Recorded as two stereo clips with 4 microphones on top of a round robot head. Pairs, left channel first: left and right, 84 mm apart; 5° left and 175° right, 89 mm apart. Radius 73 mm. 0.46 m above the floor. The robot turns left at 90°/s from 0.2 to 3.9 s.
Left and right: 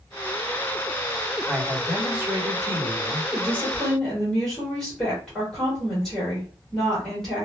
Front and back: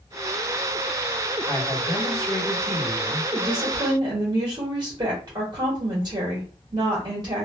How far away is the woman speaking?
About 1.4 m.